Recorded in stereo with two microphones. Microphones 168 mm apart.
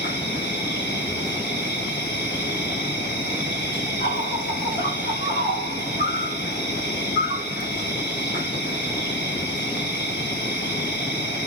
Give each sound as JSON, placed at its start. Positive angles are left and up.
{"t": 0.0, "sound": "an insect", "side_deg": 70, "distance_m": 1.9}